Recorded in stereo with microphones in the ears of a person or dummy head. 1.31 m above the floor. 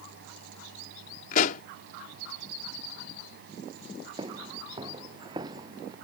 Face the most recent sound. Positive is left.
turn(degrees=-25)  # may be behind; listen again after turning